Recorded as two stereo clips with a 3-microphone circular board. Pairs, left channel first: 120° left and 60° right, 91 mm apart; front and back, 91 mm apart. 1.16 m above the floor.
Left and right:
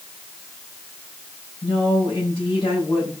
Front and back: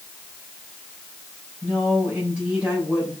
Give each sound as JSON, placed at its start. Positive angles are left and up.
{"t": 1.6, "sound": "a woman speaking", "azimuth_deg": 105, "distance_m": 4.5}